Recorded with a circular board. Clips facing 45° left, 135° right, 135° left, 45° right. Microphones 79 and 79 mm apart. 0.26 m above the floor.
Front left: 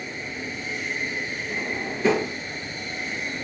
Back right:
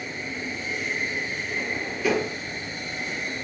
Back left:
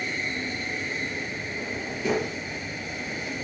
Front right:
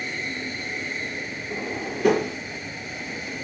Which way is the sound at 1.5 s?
20° right.